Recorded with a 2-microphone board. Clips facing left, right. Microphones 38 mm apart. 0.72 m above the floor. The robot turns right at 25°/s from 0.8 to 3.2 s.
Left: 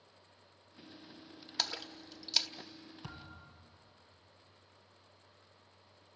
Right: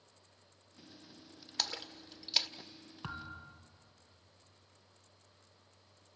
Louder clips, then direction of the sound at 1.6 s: Left 1 dB; 5° left (ahead or behind).